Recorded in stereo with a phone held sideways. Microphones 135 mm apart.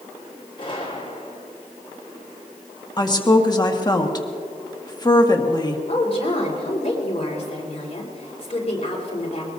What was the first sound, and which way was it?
A gunshot, 35° left (ahead or behind).